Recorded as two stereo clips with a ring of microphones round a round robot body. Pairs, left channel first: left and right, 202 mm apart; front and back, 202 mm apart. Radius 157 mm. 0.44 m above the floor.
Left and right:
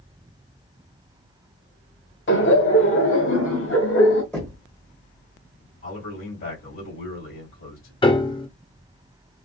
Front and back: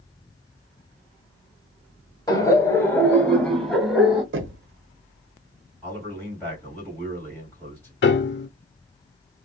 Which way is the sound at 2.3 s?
70° left.